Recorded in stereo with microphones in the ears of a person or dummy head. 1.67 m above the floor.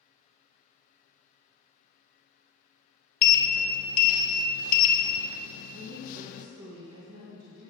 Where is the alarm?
No alarm in this recording.